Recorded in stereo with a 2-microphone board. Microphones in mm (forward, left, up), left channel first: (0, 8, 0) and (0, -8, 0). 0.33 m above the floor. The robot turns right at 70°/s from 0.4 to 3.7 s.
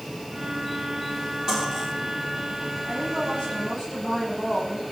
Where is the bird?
No bird in this recording.